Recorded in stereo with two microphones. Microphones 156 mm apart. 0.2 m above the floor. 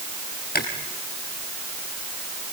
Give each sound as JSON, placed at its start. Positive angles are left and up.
{"t": 0.6, "sound": "chewing", "side_deg": 85, "distance_m": 2.5}